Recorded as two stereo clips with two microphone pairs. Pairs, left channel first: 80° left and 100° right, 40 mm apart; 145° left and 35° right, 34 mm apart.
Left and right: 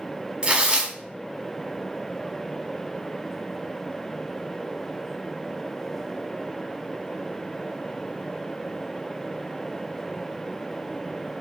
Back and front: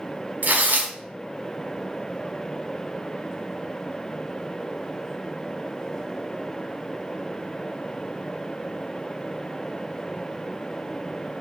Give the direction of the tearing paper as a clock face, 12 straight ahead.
1 o'clock.